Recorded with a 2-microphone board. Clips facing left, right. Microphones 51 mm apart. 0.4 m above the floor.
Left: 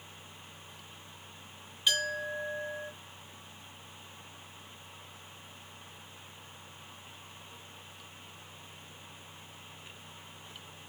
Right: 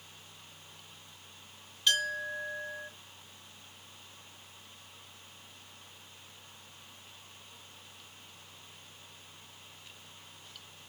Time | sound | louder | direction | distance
1.9 | a clink | right 1 dB | 10° left (ahead or behind) | 3 m